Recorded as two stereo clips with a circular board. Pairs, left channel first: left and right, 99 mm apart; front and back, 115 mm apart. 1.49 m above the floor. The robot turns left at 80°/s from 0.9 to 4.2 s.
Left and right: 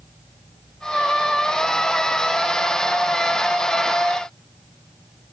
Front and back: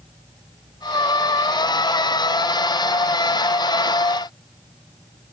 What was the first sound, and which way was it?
Only background noise.